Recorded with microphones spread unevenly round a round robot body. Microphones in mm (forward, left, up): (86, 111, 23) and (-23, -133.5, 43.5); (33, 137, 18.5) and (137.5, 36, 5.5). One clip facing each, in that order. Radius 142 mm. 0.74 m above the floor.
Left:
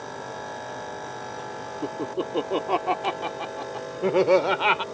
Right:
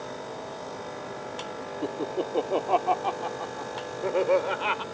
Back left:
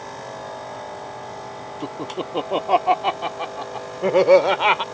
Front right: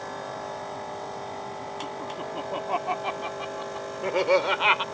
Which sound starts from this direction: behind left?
Laughter, at 1.8 s.